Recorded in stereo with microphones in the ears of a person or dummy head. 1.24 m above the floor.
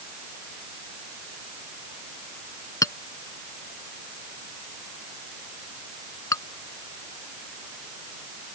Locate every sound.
2.8 s a clink: 20° left (ahead or behind)